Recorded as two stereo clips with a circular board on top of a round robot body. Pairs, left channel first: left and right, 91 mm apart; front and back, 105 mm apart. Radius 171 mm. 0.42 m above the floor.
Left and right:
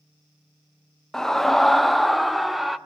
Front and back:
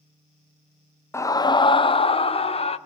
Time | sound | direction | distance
1.1 | a scream | 10° left | 0.8 m